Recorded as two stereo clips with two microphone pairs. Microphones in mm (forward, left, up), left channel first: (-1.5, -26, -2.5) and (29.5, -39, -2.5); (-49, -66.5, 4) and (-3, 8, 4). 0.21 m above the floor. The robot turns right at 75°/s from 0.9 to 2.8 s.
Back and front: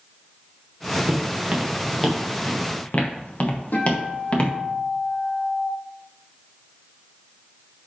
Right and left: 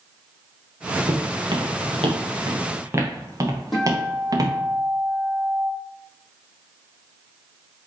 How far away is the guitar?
About 6 m.